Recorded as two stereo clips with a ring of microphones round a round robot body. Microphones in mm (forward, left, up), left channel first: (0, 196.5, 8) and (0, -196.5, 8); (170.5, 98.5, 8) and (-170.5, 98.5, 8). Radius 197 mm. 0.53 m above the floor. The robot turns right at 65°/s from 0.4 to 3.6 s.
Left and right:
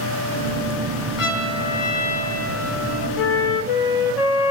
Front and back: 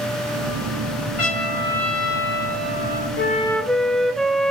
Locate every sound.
1.2 s a trumpet: 45° left, 6.5 m; by 3.1 s 170° left, 6.5 m
3.2 s a flute: 60° left, 0.7 m; by 4.5 s 90° left, 0.7 m